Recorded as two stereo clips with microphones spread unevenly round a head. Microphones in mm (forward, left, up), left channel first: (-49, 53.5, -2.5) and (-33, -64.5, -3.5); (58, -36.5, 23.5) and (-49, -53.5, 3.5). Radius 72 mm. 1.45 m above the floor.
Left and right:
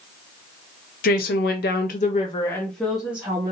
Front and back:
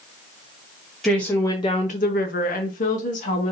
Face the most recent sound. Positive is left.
turn(degrees=-5)